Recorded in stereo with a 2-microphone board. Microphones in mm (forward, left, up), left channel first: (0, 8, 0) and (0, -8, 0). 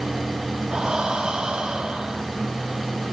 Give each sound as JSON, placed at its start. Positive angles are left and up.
{"t": 0.7, "sound": "breathing", "side_deg": -65, "distance_m": 3.5}